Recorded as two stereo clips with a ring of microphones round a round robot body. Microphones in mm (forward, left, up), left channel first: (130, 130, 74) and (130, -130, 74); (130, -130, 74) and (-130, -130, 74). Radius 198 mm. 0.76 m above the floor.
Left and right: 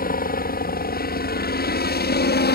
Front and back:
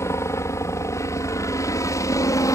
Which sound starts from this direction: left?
A helicopter, at 0.0 s.